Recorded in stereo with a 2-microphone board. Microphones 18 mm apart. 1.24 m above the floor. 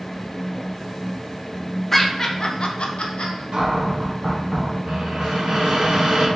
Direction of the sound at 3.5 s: 55° right (ahead or behind).